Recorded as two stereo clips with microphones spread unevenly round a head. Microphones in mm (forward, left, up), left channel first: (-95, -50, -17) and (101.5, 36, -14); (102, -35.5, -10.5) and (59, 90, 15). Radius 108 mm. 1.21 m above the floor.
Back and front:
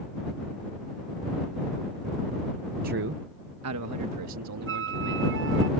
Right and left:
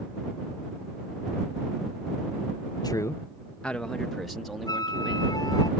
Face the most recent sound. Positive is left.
turn(degrees=-10)